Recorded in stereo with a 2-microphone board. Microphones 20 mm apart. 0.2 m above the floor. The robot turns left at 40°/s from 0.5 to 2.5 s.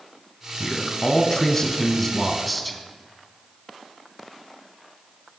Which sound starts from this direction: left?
A man speaking, at 0.6 s.